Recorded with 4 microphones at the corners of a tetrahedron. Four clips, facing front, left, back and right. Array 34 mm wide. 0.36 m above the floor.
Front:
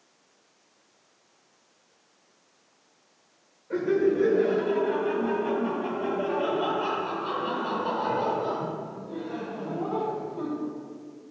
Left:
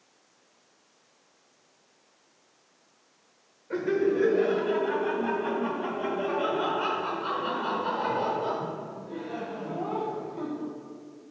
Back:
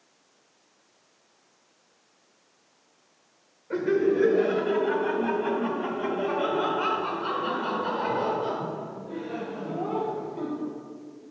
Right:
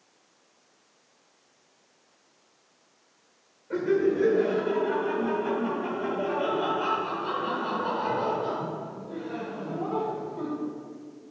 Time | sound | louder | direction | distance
3.7 | laughter | right 1 dB, even | 165° left | 1.2 m